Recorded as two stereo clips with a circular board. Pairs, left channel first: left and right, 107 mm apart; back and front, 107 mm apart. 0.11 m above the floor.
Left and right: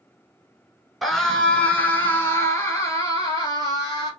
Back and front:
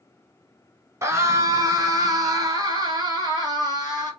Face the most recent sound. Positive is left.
turn(degrees=45)